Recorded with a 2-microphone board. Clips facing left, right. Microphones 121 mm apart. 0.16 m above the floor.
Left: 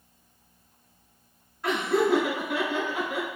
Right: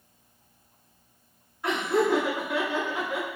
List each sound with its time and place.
1.6 s laughter: 10° right (ahead or behind), 1.5 m